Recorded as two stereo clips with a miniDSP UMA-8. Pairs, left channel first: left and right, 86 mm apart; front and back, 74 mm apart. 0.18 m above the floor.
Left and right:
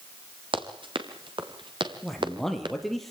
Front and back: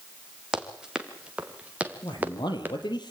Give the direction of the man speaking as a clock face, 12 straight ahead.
12 o'clock.